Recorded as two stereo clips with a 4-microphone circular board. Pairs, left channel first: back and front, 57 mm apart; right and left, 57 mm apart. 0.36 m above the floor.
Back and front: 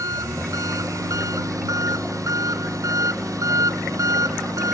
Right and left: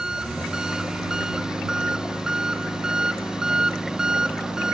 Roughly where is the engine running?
Ahead.